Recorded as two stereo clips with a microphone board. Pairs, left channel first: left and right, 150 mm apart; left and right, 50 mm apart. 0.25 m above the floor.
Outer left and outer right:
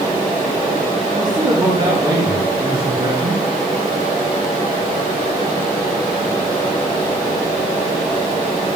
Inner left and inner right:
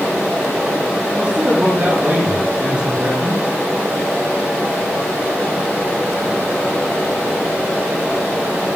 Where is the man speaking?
30° right (ahead or behind), 4.5 m.